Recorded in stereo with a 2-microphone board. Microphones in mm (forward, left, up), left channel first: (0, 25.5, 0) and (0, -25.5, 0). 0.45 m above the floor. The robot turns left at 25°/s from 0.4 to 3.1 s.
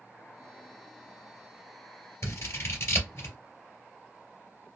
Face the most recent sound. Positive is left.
turn(degrees=45)  # may be behind; listen again after turning